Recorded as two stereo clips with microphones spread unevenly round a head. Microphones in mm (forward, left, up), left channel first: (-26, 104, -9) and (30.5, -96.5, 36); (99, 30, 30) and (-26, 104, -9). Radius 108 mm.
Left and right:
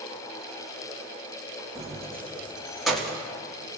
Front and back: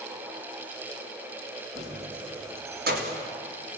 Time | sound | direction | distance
1.8 | keys jangling | 145° right | 1.7 m